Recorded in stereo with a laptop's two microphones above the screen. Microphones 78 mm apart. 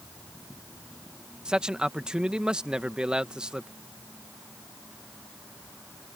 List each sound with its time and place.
1.4 s a man speaking: 10° right (ahead or behind)